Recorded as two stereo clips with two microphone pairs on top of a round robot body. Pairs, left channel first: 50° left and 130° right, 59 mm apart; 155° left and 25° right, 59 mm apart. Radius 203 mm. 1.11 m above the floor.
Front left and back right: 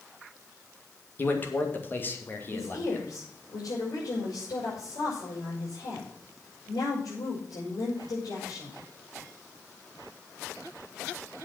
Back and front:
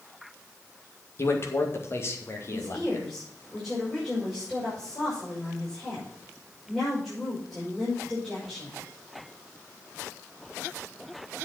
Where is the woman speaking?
65° left, 6 m.